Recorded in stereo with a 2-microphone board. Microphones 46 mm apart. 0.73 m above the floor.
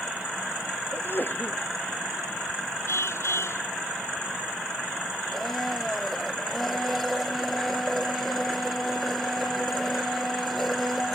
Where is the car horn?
75° left (ahead or behind).